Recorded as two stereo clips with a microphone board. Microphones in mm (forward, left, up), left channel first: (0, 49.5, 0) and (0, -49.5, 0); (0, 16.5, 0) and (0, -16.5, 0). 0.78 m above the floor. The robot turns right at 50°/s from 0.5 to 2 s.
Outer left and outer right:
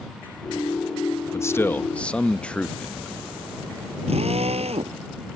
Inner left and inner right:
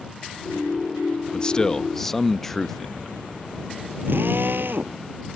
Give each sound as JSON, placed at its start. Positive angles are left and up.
{"t": 1.3, "sound": "a man speaking", "azimuth_deg": 130}
{"t": 4.1, "sound": "a drill", "side_deg": -90}